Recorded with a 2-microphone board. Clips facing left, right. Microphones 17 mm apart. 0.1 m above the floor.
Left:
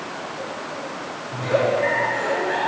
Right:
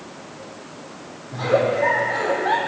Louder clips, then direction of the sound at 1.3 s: Right 1 dB; 65° right (ahead or behind).